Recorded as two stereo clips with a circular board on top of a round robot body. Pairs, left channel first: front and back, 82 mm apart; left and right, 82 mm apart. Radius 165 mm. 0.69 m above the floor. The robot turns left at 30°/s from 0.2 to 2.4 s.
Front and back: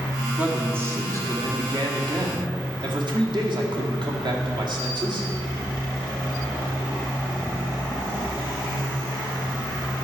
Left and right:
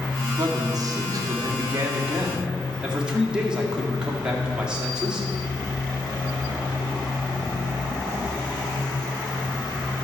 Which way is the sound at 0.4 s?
110° right.